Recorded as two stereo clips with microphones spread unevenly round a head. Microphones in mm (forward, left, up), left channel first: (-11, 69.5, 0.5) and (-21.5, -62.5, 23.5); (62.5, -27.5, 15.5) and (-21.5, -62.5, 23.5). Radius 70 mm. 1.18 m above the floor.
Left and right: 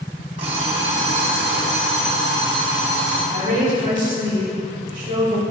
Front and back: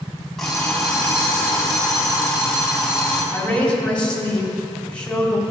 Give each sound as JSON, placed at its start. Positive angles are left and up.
{"t": 0.4, "sound": "an alarm clock", "azimuth_deg": -65, "distance_m": 3.0}
{"t": 3.3, "sound": "a woman speaking", "azimuth_deg": -55, "distance_m": 2.5}